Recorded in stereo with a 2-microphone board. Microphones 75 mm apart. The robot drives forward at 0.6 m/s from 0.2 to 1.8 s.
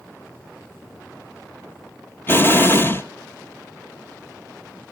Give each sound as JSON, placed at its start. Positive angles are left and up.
{"t": 2.3, "sound": "an explosion", "side_deg": 30, "distance_m": 0.9}